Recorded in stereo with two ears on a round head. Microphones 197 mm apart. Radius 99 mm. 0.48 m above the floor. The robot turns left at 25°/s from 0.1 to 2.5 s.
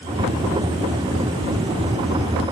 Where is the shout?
No shout in this recording.